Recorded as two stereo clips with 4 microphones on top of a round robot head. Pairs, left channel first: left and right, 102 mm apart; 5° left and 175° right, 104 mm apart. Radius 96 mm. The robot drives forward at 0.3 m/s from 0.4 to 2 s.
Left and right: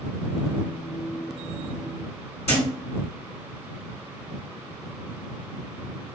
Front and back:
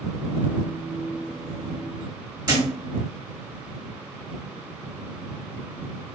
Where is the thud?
135° left, 1.6 m.